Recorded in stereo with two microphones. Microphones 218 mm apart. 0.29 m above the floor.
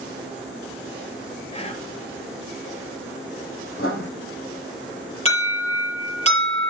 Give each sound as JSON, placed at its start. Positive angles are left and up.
{"t": 1.5, "sound": "whispering", "side_deg": 30, "distance_m": 2.0}
{"t": 3.8, "sound": "writing", "side_deg": 75, "distance_m": 4.0}
{"t": 5.2, "sound": "an alarm", "side_deg": 30, "distance_m": 4.5}